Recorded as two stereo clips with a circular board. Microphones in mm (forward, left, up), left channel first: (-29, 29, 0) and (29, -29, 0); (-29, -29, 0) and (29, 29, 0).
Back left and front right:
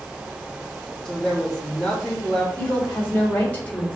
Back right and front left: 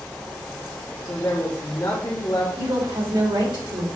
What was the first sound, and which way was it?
A woman speaking, 145° right.